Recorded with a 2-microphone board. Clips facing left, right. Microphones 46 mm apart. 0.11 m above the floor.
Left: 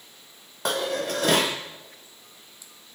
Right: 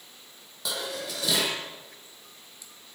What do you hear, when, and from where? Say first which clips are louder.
0.7 s dishes clattering: left 7 dB; 50° left (ahead or behind), 3 m